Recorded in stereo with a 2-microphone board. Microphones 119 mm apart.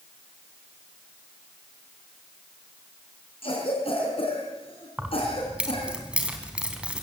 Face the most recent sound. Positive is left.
turn(degrees=-10)  # may be behind; listen again after turning